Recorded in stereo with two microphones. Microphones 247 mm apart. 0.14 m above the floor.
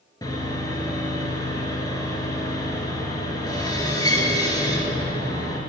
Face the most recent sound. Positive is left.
turn(degrees=15)  # may be behind; listen again after turning